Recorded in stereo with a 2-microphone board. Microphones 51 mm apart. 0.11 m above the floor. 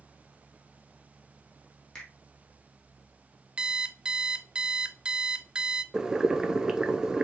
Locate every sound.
1.9 s a finger snap: 15° left (ahead or behind), 3 m
3.6 s an alarm clock: 20° right (ahead or behind), 0.7 m
5.9 s boiling: 15° right (ahead or behind), 0.8 m